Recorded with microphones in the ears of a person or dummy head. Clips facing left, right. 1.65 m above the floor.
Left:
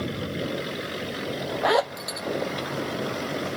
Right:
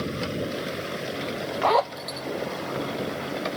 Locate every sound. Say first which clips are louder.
1.6 s a zipper: even; 10° left (ahead or behind), 0.5 m